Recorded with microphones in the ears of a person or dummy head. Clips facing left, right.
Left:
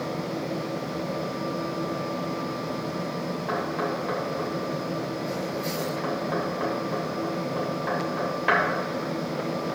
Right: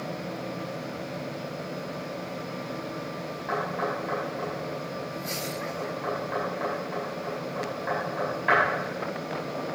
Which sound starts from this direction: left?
Knocking, at 3.5 s.